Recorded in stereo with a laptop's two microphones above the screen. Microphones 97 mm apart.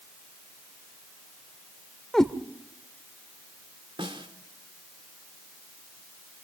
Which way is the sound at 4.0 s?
60° right (ahead or behind).